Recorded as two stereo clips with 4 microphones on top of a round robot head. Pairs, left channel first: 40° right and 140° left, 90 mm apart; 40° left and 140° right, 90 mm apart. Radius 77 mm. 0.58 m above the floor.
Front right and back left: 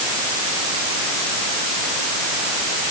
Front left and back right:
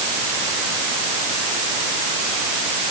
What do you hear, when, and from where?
Only background noise.